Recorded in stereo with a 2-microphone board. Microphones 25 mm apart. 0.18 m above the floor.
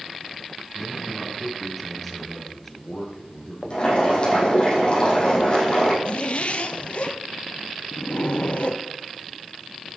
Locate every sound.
0.7 s a man speaking: 10° right (ahead or behind), 3 m; by 4.5 s 30° left (ahead or behind), 3.5 m
3.7 s boiling: 40° left (ahead or behind), 5 m
6.0 s a zipper: 50° left (ahead or behind), 0.7 m